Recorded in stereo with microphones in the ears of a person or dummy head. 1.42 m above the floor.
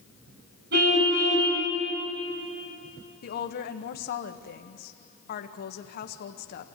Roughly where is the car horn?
Right.